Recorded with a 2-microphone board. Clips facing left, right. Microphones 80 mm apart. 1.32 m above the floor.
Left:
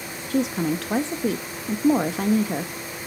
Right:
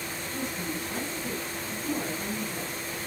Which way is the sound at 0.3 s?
80° left.